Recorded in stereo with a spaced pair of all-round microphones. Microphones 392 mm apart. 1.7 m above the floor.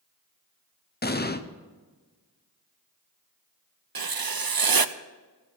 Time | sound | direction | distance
1.0 | an explosion | 25° left (ahead or behind) | 0.8 m
4.0 | writing | 60° right (ahead or behind) | 0.6 m